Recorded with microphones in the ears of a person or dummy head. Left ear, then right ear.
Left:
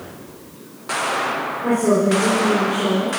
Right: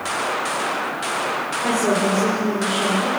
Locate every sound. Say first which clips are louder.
1.6 s a woman speaking: left 2 dB; 35° right (ahead or behind), 5 m